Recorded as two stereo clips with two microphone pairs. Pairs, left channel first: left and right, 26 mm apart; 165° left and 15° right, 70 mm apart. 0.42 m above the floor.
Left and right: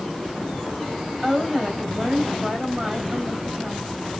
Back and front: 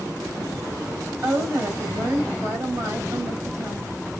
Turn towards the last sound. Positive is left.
turn(degrees=-40)